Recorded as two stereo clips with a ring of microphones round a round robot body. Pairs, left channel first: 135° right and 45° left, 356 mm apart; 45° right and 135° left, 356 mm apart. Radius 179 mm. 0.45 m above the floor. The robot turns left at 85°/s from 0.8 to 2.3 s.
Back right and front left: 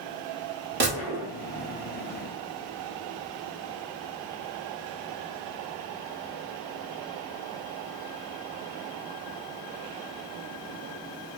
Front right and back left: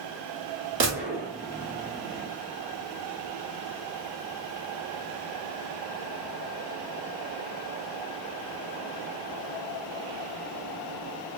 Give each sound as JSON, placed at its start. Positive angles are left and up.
{"t": 0.8, "sound": "a gunshot", "azimuth_deg": 95, "distance_m": 1.1}